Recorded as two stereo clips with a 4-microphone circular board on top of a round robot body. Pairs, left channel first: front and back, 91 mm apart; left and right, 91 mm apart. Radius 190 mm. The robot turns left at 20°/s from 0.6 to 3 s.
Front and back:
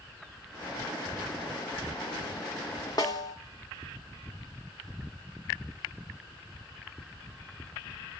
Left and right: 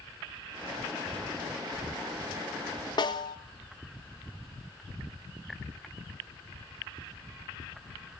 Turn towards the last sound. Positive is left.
turn(degrees=45)